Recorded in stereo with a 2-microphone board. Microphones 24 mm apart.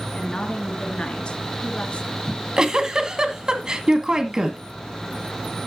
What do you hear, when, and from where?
0.1 s a woman speaking: 45° left (ahead or behind), 3 m
2.3 s a giggle: 35° right (ahead or behind), 1.8 m